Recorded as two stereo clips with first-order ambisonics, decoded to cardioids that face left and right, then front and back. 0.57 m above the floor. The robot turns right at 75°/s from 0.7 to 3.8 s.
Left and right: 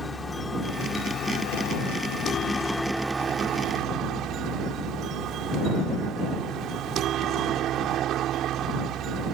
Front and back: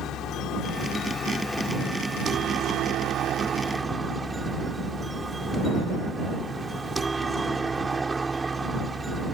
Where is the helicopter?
15° left; by 9.4 s 110° right.